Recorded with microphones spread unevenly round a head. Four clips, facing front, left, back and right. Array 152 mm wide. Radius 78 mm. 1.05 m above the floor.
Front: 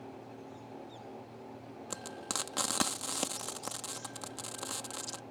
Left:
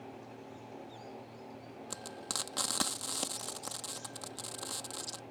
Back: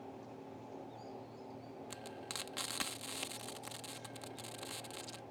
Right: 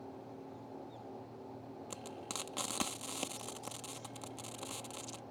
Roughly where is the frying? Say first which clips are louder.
Left 2 dB, front 10 dB; ahead.